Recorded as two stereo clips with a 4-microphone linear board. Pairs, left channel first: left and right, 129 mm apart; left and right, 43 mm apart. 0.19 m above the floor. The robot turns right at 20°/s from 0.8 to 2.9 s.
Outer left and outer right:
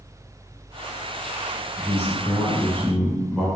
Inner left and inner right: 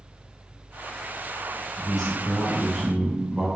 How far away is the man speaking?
About 1.1 m.